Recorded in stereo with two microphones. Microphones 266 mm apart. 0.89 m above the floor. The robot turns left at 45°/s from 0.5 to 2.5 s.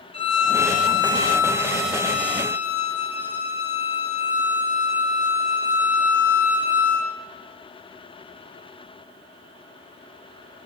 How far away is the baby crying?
No baby crying in this recording.